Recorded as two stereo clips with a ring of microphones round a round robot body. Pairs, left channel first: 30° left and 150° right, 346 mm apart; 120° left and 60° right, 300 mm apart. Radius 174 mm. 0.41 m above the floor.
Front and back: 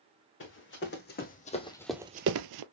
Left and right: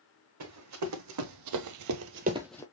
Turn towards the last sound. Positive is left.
turn(degrees=-160)